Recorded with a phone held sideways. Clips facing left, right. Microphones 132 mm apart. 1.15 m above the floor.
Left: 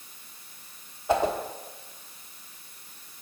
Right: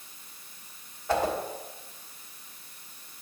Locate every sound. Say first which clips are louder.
1.1 s a whoosh: left 2 dB; 20° left (ahead or behind), 1.2 m